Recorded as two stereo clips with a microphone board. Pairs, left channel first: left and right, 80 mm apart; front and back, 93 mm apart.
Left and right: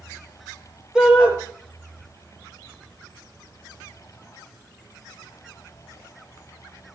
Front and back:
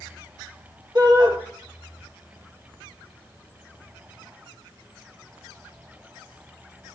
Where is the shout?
170° right, 2 m.